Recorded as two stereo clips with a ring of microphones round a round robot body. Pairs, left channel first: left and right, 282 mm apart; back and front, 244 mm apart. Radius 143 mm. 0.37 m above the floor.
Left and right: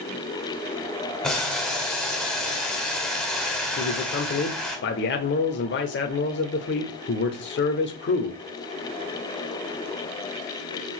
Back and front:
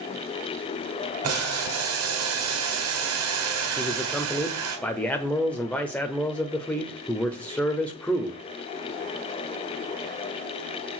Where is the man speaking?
100° left, 1.0 m.